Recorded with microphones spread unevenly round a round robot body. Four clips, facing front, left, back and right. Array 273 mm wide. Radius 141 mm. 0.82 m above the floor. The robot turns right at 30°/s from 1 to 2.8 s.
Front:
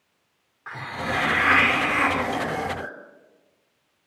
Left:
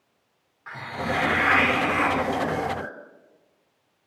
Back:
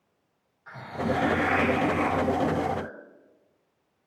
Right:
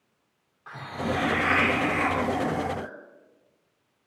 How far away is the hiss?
About 3.5 m.